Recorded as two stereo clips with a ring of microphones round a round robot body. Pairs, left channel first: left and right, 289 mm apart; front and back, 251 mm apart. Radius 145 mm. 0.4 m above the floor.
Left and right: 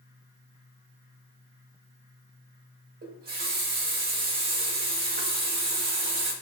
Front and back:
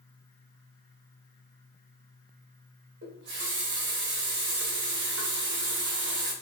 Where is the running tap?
140° right, 0.8 m.